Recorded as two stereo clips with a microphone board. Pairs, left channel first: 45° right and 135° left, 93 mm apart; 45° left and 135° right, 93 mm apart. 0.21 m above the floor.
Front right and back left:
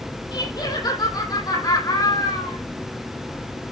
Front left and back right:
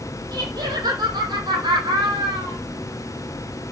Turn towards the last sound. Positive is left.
turn(degrees=-95)